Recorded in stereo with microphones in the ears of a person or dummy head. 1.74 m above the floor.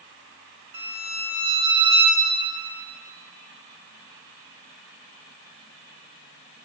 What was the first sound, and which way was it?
A violin, 25° right (ahead or behind).